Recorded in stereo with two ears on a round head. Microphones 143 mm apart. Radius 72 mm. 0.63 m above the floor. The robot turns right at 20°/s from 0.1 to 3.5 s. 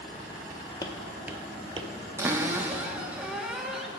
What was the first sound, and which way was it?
Footsteps, 25° left (ahead or behind).